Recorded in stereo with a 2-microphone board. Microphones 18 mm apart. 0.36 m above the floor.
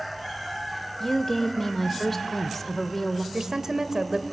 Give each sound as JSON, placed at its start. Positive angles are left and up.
{"t": 1.0, "sound": "a woman speaking", "side_deg": 15, "distance_m": 0.8}
{"t": 3.3, "sound": "a woman speaking", "side_deg": -35, "distance_m": 1.1}